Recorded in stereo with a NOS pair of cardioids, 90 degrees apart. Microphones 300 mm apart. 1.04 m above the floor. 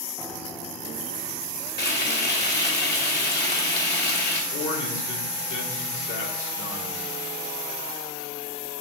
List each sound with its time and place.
0.2 s a piano: 5° left, 1.1 m
1.8 s frying: 35° left, 2.5 m
4.5 s a man speaking: 70° left, 2.5 m